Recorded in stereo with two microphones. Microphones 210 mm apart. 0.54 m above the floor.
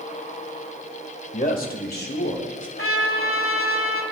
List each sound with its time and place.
1.3 s a man speaking: 35° left (ahead or behind), 1.7 m; by 2.7 s 60° left (ahead or behind), 2.5 m
2.8 s a trumpet: 80° left, 1.5 m